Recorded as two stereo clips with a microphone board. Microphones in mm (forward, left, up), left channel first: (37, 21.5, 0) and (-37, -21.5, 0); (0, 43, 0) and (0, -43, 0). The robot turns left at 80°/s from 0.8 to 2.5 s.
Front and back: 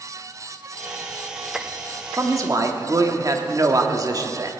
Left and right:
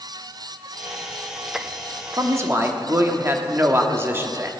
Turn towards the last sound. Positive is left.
turn(degrees=-140)